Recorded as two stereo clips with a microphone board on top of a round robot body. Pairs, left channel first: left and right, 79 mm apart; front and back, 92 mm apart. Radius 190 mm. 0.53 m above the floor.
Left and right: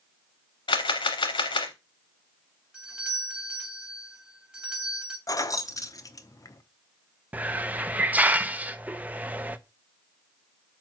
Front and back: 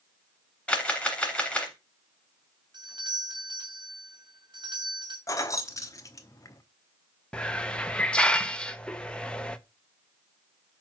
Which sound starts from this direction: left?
A camera shutter, at 0.7 s.